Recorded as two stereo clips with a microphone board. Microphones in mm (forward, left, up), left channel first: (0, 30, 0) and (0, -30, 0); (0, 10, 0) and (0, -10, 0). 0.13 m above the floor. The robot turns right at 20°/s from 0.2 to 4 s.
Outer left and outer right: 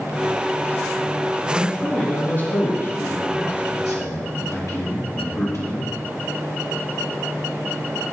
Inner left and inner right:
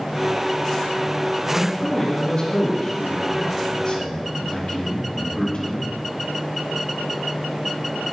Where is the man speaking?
15° left, 4 m; by 5.9 s 65° left, 4 m.